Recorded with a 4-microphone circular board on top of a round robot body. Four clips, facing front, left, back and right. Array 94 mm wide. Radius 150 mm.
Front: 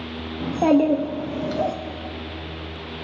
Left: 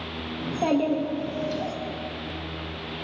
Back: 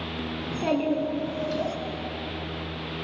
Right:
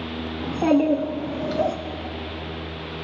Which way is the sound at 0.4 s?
5° right.